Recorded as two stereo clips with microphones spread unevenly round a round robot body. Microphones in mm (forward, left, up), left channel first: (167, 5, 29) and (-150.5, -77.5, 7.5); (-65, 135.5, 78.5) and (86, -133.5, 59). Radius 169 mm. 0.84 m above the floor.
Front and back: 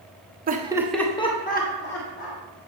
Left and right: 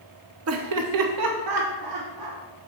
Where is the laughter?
105° right, 1.1 m; by 2.4 s 40° right, 2.5 m.